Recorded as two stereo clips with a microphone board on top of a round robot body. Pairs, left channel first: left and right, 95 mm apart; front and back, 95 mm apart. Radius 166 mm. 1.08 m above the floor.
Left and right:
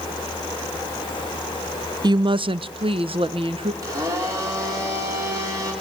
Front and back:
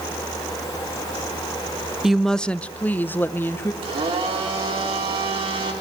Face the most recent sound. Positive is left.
turn(degrees=-150)